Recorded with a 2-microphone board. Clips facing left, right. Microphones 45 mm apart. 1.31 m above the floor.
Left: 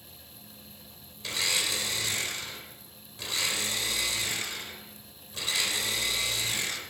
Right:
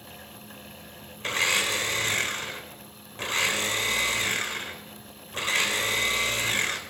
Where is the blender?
45° right (ahead or behind), 3 m.